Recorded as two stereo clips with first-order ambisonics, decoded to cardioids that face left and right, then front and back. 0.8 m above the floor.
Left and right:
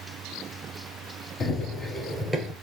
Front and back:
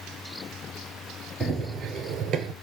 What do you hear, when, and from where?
1.4 s running footsteps: 115° left, 0.8 m; by 2.5 s 165° right, 1.0 m